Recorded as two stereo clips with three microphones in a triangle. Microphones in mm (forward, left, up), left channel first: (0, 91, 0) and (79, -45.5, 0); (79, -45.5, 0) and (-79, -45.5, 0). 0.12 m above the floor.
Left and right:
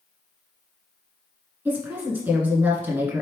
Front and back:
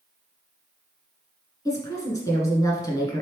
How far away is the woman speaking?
About 1.2 m.